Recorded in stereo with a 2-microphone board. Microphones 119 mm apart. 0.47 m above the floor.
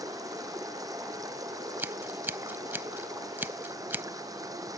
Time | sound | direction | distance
0.0 | running water | 30° right (ahead or behind) | ?
1.8 | scissors | 20° right (ahead or behind) | ?